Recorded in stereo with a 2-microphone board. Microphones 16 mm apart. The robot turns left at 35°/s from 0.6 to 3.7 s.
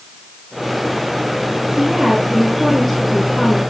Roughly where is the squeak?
No squeak in this recording.